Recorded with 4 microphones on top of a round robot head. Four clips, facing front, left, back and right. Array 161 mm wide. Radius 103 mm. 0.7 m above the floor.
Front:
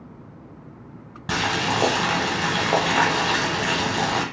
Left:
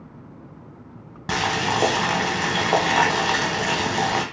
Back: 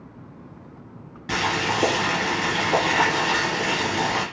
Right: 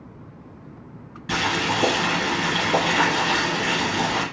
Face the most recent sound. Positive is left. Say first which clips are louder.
# left 1 dB, even
turn(degrees=55)